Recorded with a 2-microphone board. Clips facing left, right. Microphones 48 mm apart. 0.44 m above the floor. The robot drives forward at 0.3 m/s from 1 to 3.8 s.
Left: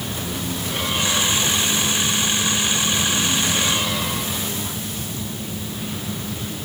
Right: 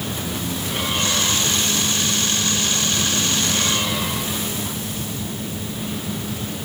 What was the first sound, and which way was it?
Only background noise.